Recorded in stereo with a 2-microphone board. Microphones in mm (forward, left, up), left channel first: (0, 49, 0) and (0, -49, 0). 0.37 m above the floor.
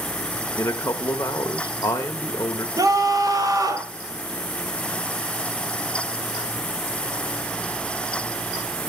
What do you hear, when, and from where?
0.6 s a man speaking: 30° left (ahead or behind), 0.9 m
2.8 s a scream: 40° right (ahead or behind), 2 m